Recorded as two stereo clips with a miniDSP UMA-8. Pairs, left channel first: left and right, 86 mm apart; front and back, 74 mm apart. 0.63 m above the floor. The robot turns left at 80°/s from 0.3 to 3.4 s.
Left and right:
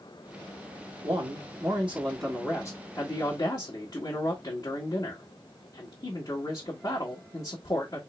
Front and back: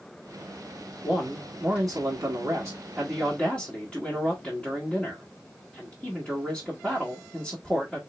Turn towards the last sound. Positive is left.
turn(degrees=75)